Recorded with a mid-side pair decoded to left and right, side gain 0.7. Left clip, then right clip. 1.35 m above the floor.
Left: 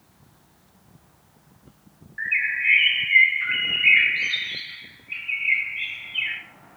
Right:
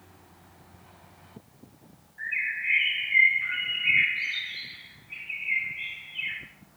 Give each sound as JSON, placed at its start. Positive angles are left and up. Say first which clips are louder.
{"t": 2.2, "sound": "a bird", "louder": "left 6 dB", "azimuth_deg": 55, "distance_m": 1.9}